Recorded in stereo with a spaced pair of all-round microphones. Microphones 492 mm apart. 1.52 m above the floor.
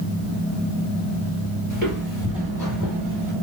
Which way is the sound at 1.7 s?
20° right (ahead or behind).